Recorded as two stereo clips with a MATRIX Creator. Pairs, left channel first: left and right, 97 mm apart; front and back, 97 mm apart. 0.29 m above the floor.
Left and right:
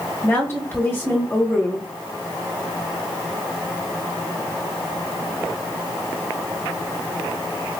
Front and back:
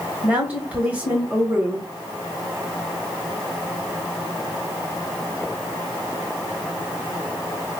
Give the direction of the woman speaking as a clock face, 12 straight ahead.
8 o'clock.